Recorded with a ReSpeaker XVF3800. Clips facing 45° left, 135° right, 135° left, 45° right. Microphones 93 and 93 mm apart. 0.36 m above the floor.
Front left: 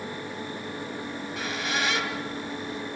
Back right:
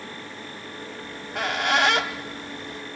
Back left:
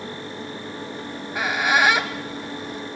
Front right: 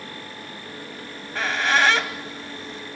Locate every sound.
1.0 s a squeak: 150° right, 1.1 m